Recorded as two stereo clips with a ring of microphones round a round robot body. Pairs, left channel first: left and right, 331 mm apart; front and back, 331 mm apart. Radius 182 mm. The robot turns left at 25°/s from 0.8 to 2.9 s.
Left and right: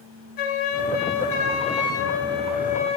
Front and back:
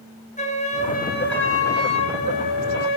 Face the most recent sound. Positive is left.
turn(degrees=15)